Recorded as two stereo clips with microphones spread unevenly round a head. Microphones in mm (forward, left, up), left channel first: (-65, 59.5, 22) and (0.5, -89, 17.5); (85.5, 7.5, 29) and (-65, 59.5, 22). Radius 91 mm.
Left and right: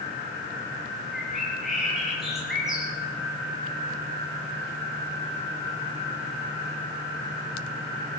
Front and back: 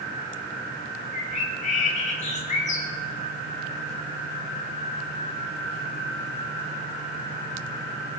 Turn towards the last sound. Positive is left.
turn(degrees=20)